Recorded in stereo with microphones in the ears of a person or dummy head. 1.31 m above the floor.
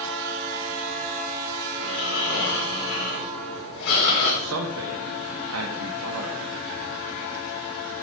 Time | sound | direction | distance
1.8 | snoring | 90° left | 4 m
4.4 | a man speaking | 80° right | 1.5 m